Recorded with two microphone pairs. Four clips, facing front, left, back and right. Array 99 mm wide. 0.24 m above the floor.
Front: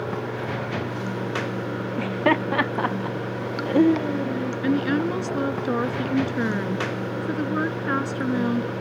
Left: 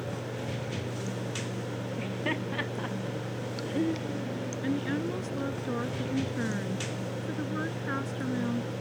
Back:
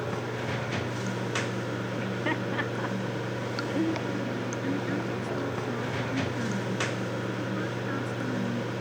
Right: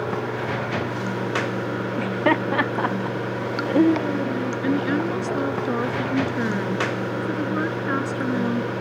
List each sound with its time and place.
0.0 s running water: 80° right
2.0 s laughter: 50° right
4.6 s a woman speaking: 35° right